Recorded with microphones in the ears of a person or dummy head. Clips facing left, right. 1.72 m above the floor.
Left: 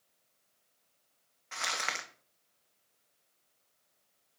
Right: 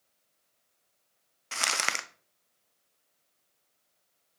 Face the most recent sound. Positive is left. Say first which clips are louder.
# right 4 dB
turn(degrees=-55)  # may be behind; listen again after turning